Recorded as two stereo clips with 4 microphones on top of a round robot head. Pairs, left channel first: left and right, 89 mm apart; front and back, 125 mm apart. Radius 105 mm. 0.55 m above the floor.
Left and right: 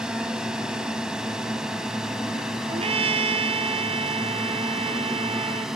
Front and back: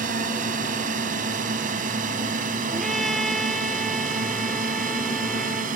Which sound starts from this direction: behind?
A drone, at 0.0 s.